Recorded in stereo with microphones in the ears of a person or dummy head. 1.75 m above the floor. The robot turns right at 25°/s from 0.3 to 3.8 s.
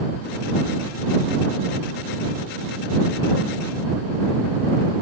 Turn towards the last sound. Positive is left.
No sound to turn to.